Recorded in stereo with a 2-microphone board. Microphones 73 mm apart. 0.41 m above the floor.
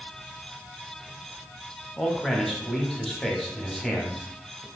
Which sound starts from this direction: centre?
A man speaking, at 2.0 s.